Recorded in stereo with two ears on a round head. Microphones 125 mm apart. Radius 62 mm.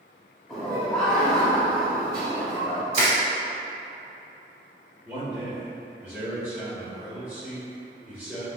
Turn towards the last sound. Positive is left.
turn(degrees=-20)  # may be behind; listen again after turning